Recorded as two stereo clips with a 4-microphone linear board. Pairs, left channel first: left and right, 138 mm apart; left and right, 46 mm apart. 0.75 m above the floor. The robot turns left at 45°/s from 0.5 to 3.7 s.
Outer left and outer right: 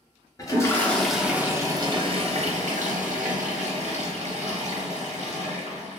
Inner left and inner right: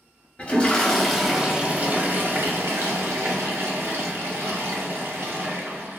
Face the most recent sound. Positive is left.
turn(degrees=-115)